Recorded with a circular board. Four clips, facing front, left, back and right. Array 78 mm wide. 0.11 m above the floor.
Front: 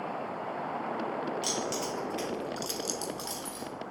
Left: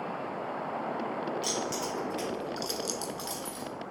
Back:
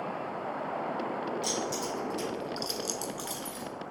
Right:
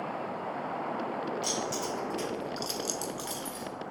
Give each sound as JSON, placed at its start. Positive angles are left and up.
{"t": 1.4, "sound": "keys jangling", "azimuth_deg": 20, "distance_m": 1.8}